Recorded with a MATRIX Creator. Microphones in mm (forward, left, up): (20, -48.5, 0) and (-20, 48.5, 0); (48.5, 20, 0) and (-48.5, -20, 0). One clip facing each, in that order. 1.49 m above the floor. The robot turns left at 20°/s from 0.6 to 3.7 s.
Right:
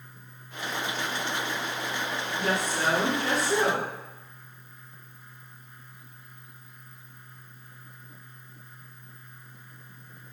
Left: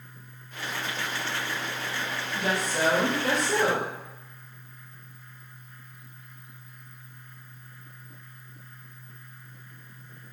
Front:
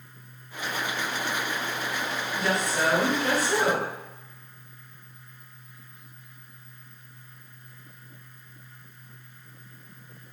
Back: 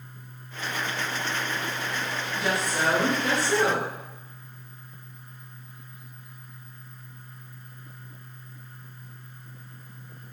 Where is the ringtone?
No ringtone in this recording.